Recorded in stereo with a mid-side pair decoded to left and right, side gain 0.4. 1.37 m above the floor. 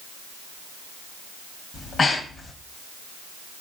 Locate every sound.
1.7 s breathing: 40° left, 1.0 m